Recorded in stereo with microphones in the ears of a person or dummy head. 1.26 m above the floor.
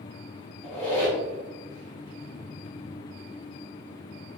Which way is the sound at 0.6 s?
10° left (ahead or behind).